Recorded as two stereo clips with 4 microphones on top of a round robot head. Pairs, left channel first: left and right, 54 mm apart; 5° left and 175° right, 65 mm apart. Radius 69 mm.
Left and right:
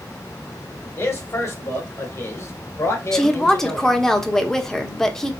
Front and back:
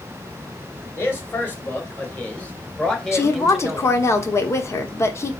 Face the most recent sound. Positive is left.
turn(degrees=10)